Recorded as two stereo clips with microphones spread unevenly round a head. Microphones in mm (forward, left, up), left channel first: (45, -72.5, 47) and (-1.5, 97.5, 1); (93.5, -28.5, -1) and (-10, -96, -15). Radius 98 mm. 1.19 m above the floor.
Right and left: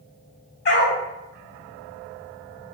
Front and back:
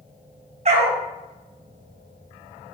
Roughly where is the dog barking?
Behind right.